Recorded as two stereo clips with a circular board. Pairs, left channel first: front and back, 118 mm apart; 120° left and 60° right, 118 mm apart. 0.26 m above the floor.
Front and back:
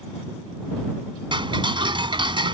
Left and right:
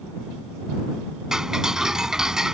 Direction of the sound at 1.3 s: 145° right.